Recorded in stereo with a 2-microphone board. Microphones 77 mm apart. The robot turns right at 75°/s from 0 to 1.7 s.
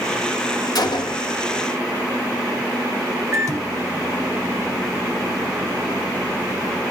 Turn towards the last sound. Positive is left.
turn(degrees=-45)  # may be behind; listen again after turning